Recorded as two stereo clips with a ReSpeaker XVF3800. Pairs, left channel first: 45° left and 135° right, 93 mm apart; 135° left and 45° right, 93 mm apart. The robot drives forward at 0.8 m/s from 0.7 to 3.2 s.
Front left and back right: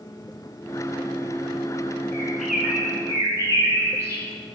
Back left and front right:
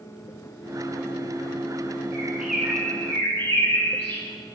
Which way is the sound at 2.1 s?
15° right.